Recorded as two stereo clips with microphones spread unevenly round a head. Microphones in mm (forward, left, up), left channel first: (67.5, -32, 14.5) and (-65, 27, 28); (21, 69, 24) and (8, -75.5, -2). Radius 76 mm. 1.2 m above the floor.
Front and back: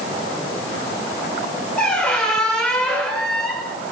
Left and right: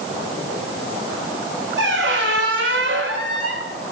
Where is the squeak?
110° right, 2.5 m.